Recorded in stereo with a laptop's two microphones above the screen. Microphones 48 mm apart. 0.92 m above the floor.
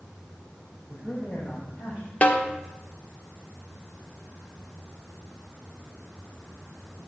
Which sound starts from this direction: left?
A snare drum, at 2.2 s.